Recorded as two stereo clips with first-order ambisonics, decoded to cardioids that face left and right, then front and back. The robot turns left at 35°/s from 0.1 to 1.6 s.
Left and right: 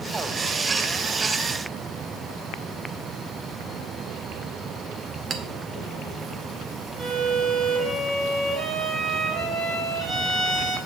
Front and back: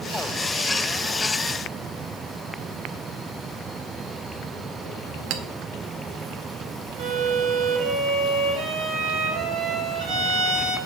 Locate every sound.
5.3 s a clink: 155° right, 0.9 m
7.0 s a violin: 150° right, 4.5 m